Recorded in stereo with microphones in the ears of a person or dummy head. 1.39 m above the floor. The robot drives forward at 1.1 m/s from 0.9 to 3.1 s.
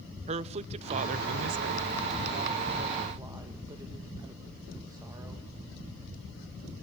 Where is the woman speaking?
35° right (ahead or behind), 0.9 m; by 5.4 s 15° right (ahead or behind), 1.8 m.